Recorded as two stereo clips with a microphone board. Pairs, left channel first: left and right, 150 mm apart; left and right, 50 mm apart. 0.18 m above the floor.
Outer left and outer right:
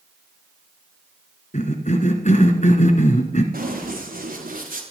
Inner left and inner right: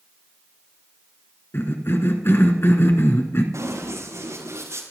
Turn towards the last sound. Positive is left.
turn(degrees=-70)  # may be behind; listen again after turning